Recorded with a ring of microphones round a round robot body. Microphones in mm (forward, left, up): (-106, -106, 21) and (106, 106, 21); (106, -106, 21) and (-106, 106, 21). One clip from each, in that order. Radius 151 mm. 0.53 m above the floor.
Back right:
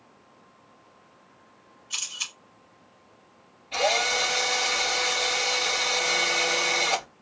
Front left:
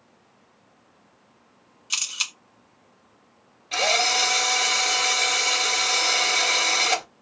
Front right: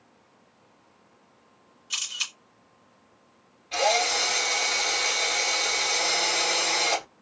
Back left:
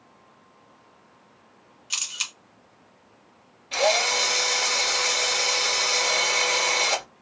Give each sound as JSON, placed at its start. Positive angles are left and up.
{"t": 1.9, "sound": "a camera shutter", "azimuth_deg": 60, "distance_m": 2.0}
{"t": 3.7, "sound": "a drill", "azimuth_deg": 60, "distance_m": 2.5}